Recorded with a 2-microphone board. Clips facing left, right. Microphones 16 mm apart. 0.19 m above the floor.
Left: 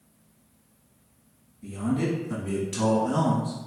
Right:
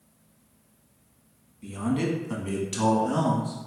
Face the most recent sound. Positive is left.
turn(degrees=0)  # may be behind; listen again after turning